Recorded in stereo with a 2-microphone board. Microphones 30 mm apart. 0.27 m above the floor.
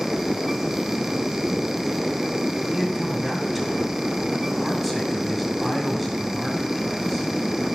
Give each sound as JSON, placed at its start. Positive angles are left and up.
{"t": 2.7, "sound": "a man speaking", "side_deg": -5, "distance_m": 2.0}